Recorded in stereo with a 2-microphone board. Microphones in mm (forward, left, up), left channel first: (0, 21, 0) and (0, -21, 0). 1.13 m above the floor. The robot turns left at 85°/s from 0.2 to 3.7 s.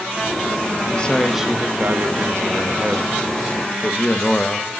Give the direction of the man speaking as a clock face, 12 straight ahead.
11 o'clock.